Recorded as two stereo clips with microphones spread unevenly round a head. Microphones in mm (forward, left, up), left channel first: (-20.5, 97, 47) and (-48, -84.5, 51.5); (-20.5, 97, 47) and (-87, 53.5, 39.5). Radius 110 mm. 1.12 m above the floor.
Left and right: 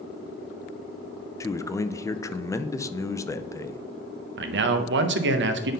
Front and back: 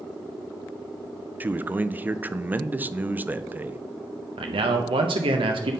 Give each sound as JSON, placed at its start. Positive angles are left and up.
{"t": 1.4, "sound": "a man speaking", "azimuth_deg": 150, "distance_m": 0.5}
{"t": 4.4, "sound": "a man speaking", "azimuth_deg": -125, "distance_m": 0.8}